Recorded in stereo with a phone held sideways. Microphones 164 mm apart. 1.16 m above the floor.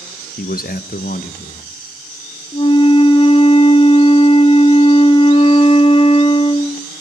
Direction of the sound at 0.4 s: 65° left (ahead or behind).